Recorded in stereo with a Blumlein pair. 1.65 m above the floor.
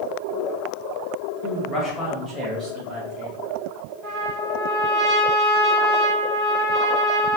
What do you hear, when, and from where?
1.4 s a man speaking: 35° left, 1.0 m; by 3.4 s 30° right, 1.6 m
4.0 s a trumpet: 15° right, 1.6 m